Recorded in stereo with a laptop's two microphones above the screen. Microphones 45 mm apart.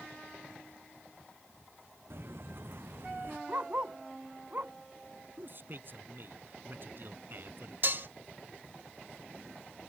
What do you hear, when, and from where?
2.1 s footsteps: 55° right (ahead or behind); by 3.4 s 50° right (ahead or behind)
3.5 s a dog barking: 40° right (ahead or behind)
5.4 s a man speaking: 45° right (ahead or behind)
7.8 s dishes clattering: 50° right (ahead or behind)